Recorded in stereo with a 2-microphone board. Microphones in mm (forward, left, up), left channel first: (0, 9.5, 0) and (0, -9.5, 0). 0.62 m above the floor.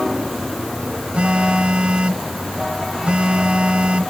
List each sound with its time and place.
1.1 s a phone buzzing: 70° right (ahead or behind)